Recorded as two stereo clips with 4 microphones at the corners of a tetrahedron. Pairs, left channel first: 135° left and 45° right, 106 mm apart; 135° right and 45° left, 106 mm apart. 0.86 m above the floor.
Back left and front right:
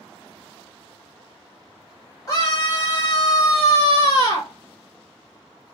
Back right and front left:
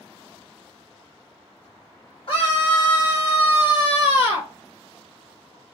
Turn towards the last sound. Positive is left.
turn(degrees=-170)